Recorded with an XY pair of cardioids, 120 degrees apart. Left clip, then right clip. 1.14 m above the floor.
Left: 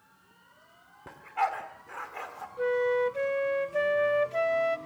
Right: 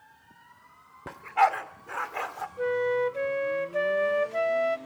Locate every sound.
1.1 s a dog barking: 40° right, 1.5 m
2.6 s a flute: straight ahead, 0.6 m